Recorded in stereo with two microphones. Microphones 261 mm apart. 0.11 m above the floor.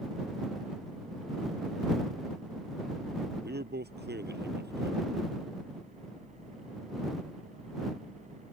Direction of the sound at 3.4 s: 40° right (ahead or behind).